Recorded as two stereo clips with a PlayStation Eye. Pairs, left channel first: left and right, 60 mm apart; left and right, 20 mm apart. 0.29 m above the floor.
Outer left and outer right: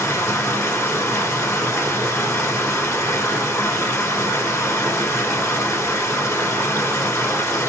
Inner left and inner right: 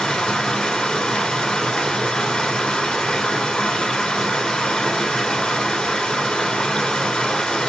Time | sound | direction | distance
0.0 | running water | 55° left (ahead or behind) | 1.2 m